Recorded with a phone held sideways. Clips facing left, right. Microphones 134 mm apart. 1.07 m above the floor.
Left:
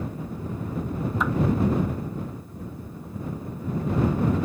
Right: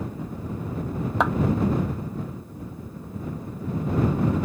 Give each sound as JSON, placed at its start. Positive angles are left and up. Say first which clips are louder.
{"t": 1.2, "sound": "a clap", "louder": "right 5 dB", "side_deg": -75}